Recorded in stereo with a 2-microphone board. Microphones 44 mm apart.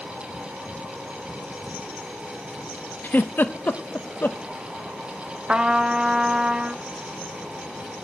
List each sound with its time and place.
3.0 s a giggle: 45° left (ahead or behind), 0.8 m
5.5 s a trumpet: 20° right (ahead or behind), 0.7 m